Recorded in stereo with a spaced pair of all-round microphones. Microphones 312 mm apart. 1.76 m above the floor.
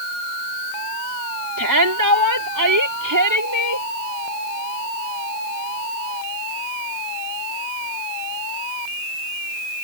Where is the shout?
75° right (ahead or behind); by 3.9 s 65° right (ahead or behind).